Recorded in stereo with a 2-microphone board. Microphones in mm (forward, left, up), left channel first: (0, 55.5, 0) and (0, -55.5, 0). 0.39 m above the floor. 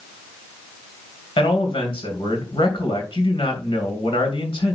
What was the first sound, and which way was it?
A man speaking, 55° left (ahead or behind).